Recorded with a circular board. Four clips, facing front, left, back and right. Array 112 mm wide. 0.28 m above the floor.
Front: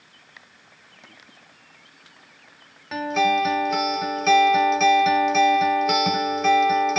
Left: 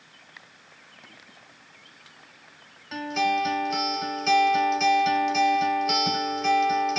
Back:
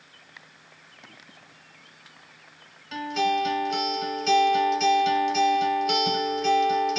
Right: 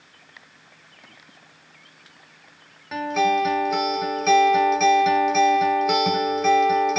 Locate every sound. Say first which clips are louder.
2.9 s a guitar: right 4 dB, front 4 dB; 25° right, 0.8 m